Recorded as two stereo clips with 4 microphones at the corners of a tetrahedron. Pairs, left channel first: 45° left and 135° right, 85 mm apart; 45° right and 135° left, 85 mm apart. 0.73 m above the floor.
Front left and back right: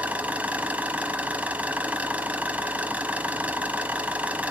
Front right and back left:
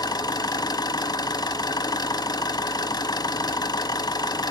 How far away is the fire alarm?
I don't hear a fire alarm.